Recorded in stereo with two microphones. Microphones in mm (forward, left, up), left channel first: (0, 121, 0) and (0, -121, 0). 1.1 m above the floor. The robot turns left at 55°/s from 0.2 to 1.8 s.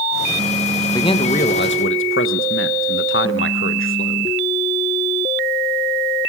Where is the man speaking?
170° left, 1.2 m; by 4.4 s 120° left, 1.2 m.